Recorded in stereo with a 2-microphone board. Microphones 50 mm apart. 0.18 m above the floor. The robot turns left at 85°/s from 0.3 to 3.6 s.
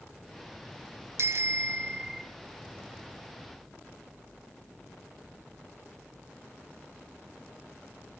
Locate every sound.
1.2 s a bicycle bell: 75° right, 2 m; by 2.2 s 165° right, 2 m